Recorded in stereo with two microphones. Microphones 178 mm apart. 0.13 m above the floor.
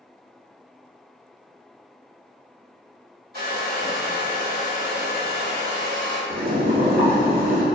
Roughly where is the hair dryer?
Right.